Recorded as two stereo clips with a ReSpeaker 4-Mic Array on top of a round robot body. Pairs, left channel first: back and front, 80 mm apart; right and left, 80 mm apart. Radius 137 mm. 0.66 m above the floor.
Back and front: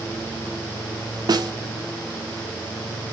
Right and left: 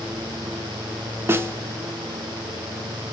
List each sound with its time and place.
1.3 s a snare drum: 30° left, 1.8 m